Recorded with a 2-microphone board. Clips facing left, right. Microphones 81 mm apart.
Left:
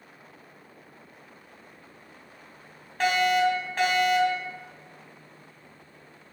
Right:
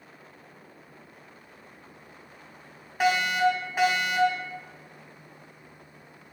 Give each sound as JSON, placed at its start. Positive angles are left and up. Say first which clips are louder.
{"t": 3.0, "sound": "a fire alarm", "louder": "left 1 dB", "side_deg": -10, "distance_m": 2.5}